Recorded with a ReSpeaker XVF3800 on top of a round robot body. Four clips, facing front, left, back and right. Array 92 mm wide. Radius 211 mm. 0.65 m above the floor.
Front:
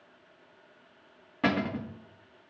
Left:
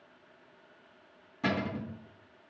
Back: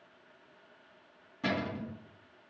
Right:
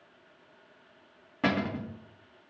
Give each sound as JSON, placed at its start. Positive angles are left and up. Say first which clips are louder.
{"t": 1.4, "sound": "a cupboard door", "louder": "right 3 dB, front 5 dB", "azimuth_deg": -40, "distance_m": 1.5}